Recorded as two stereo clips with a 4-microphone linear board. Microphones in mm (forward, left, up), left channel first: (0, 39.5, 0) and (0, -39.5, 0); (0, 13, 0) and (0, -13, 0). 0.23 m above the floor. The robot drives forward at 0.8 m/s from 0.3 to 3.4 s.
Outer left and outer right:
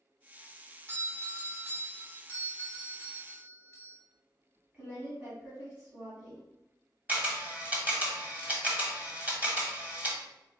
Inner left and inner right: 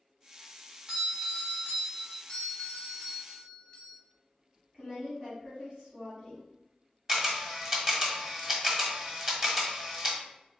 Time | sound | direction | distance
0.9 | a doorbell | 35° right (ahead or behind) | 1.8 m
2.3 | a doorbell | 35° left (ahead or behind) | 1.6 m
4.7 | a woman speaking | 20° right (ahead or behind) | 1.6 m
7.1 | a camera shutter | 20° right (ahead or behind) | 1.2 m